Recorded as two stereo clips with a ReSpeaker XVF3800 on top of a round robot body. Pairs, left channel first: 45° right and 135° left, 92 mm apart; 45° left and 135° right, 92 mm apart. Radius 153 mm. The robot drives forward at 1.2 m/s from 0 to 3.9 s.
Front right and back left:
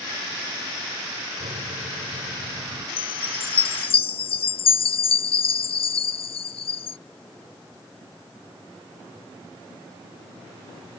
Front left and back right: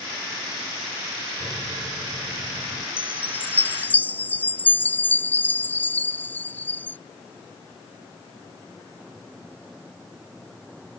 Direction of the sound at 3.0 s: 25° right.